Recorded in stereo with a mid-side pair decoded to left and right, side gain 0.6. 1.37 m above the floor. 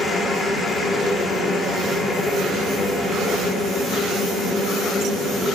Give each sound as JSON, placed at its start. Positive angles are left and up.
{"t": 0.0, "sound": "a machine running", "azimuth_deg": 25, "distance_m": 4.0}